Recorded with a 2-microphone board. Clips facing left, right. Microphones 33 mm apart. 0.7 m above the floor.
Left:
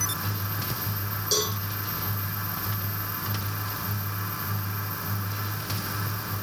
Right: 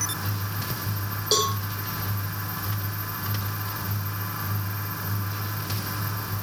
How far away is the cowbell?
About 6 m.